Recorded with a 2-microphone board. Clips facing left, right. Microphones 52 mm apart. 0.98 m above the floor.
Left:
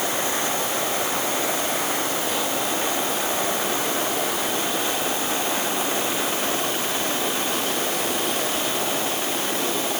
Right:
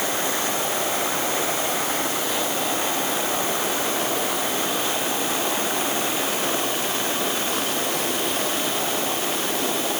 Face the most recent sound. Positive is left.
No sound to turn to.